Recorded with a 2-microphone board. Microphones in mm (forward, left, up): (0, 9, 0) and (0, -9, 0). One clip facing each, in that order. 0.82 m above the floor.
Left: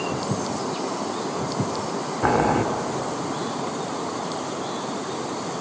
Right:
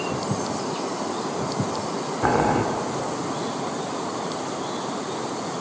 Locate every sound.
2.2 s boiling: 5° left (ahead or behind), 1.3 m